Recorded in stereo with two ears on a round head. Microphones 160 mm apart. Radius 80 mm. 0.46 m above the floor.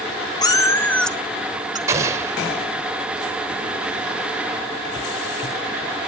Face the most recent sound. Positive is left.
turn(degrees=-15)  # may be behind; listen again after turning